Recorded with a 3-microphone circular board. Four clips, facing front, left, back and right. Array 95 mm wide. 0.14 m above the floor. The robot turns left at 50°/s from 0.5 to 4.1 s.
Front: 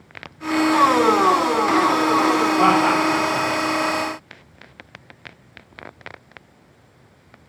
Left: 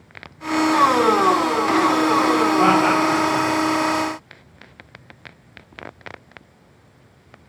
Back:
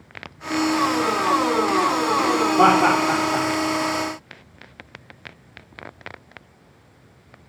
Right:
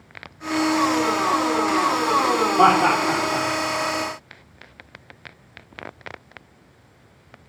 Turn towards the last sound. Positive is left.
turn(degrees=145)